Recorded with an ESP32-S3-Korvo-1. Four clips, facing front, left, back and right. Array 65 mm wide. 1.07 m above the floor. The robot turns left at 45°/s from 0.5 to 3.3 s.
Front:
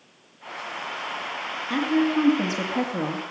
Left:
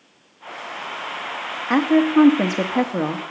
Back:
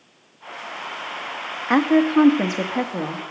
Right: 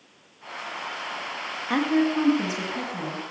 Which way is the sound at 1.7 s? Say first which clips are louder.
Left 6 dB, back 6 dB; 155° left.